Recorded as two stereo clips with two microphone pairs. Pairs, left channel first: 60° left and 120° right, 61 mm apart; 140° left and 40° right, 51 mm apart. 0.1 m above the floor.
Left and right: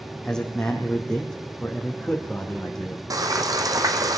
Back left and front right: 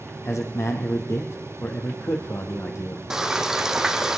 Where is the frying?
120° right, 1.1 m.